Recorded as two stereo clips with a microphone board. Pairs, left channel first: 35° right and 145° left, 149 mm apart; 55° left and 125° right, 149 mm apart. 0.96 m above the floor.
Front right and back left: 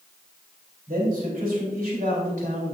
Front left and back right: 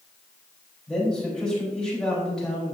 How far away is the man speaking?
About 3.5 m.